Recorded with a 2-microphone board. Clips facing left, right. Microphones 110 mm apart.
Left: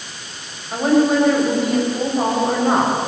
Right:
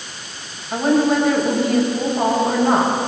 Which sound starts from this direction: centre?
A woman speaking, at 0.7 s.